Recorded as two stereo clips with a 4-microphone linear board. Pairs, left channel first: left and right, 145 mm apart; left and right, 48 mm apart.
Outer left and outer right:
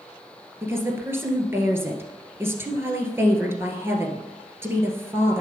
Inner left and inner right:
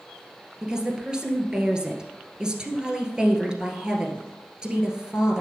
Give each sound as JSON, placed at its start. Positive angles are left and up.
{"t": 0.6, "sound": "a woman speaking", "side_deg": -15, "distance_m": 1.6}